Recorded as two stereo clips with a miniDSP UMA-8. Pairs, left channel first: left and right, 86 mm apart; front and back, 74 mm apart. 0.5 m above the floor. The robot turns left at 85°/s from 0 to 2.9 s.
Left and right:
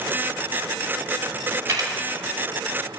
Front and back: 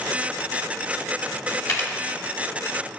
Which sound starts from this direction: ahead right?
A camera shutter, at 1.7 s.